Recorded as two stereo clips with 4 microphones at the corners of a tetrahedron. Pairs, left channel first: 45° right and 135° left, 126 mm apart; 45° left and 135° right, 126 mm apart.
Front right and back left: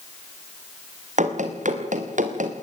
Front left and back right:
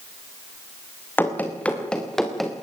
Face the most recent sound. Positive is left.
turn(degrees=135)